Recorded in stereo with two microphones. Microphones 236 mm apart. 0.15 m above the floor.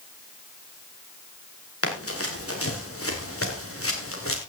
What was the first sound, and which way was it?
Running footsteps, 70° left (ahead or behind).